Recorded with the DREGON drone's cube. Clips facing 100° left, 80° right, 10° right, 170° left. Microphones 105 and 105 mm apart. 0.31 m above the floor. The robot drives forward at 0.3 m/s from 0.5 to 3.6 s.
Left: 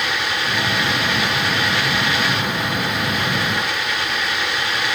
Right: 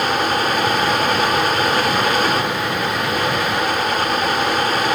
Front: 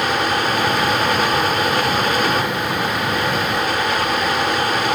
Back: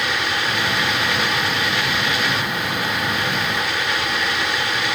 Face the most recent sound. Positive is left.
No sound to turn to.